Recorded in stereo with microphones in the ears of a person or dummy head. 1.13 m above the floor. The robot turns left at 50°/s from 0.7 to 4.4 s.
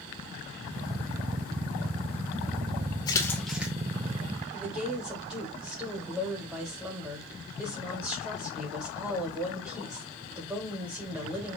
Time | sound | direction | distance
3.1 | a splash | 20° left (ahead or behind) | 1.4 m
4.5 | a woman speaking | 5° right (ahead or behind) | 3 m